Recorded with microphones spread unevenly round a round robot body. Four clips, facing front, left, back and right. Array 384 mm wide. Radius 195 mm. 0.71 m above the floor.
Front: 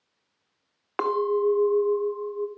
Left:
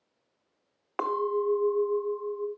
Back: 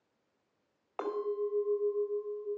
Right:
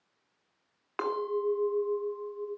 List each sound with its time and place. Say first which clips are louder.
1.0 s a clink: left 3 dB, front 10 dB; 15° left, 1.6 m